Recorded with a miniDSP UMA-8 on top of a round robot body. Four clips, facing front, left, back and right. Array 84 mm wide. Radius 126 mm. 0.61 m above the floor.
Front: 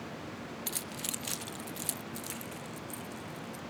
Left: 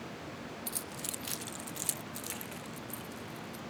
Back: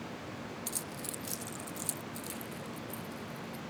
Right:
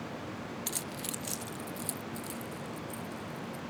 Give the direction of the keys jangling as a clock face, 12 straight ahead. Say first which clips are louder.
Right 3 dB, front 1 dB; 2 o'clock.